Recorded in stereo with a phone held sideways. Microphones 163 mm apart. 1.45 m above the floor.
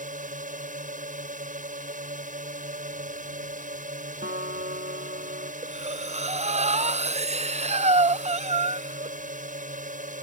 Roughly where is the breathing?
Right.